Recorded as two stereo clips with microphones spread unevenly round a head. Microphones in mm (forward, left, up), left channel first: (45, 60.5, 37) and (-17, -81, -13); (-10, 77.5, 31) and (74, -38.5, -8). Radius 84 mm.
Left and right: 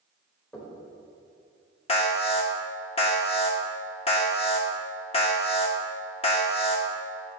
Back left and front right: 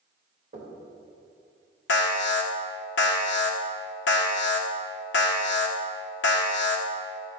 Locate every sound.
0.5 s knocking: 10° right, 3.5 m
1.9 s an alarm: 130° left, 1.5 m